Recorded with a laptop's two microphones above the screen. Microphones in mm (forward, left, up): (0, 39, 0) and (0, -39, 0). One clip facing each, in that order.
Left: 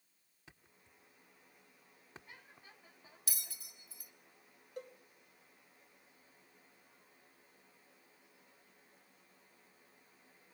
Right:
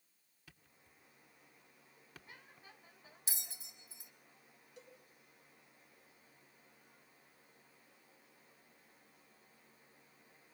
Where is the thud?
25° left (ahead or behind), 1.3 m.